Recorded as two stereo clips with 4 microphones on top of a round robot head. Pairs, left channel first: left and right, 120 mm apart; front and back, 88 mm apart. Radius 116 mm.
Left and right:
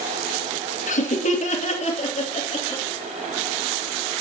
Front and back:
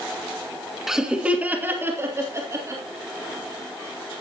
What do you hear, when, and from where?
0.9 s laughter: 95° left, 2 m; by 2.8 s 125° left, 4 m